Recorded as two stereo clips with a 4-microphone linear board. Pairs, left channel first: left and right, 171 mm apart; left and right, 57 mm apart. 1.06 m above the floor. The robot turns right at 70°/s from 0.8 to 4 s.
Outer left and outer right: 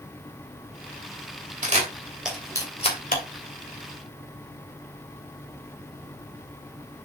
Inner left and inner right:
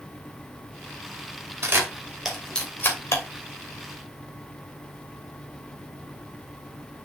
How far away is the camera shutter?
About 2.5 m.